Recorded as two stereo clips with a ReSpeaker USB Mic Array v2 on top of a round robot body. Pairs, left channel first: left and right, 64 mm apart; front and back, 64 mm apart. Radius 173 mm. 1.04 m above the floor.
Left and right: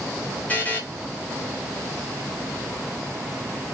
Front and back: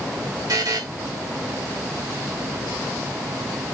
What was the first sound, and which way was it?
A buzzer, 155° left.